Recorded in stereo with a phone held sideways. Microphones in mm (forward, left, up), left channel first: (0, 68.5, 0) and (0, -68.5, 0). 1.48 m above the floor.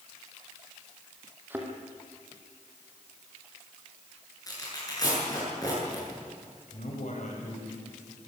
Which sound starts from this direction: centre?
A thud, at 1.5 s.